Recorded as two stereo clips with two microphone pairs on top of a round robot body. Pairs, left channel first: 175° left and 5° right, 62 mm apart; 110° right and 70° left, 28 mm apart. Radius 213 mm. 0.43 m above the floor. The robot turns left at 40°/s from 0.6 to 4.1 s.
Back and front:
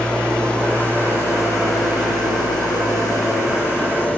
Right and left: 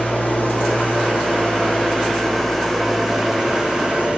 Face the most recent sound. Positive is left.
turn(degrees=105)